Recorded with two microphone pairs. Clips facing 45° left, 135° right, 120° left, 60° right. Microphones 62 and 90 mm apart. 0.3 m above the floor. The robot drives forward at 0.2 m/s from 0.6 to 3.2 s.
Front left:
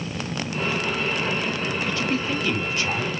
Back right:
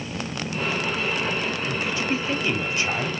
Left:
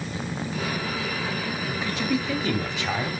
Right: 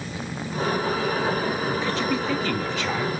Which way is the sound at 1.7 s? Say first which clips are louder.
Front left 1 dB, right 2 dB; 175° left.